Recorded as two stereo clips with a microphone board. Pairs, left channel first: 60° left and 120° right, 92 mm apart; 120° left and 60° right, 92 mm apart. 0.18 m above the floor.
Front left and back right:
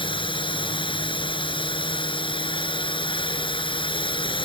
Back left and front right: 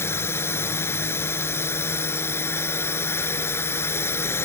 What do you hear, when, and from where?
0.0 s a drone: 60° left